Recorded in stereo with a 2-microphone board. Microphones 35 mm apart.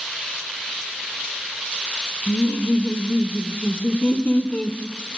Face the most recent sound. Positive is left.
turn(degrees=30)  # may be behind; listen again after turning